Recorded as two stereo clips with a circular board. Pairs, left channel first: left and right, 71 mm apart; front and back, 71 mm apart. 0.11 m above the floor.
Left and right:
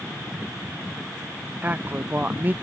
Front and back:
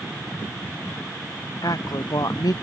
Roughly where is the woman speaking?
Ahead right.